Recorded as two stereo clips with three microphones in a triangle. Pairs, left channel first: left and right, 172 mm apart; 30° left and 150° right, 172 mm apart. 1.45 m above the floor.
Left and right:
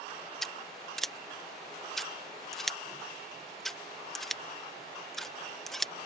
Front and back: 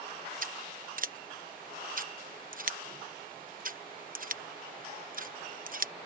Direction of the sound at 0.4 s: Straight behind.